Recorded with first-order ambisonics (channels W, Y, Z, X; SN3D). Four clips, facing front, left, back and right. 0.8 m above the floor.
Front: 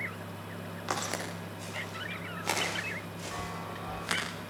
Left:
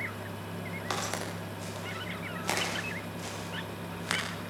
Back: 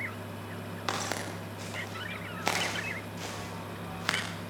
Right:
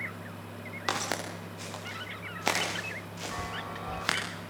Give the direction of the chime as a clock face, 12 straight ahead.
2 o'clock.